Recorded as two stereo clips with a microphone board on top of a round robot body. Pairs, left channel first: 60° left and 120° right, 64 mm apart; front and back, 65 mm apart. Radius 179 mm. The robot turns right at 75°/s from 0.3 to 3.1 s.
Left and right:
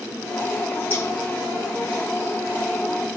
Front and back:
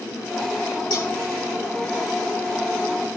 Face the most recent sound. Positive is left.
turn(degrees=165)